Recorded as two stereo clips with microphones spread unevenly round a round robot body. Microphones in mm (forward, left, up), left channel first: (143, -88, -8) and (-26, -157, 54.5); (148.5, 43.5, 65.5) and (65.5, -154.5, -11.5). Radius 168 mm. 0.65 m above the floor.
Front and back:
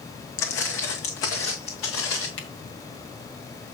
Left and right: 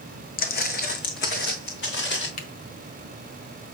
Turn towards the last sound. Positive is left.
turn(degrees=60)